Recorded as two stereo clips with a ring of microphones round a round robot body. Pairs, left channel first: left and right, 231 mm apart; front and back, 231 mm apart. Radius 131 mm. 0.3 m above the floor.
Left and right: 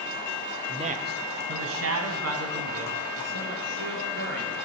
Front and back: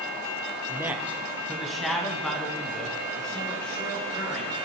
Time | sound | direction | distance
0.7 | a man speaking | 120° right | 1.0 m